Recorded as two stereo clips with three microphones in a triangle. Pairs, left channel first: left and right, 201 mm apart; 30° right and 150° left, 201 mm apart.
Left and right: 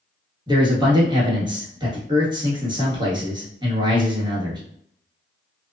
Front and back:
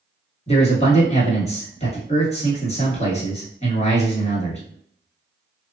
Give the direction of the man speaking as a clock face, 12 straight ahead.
1 o'clock.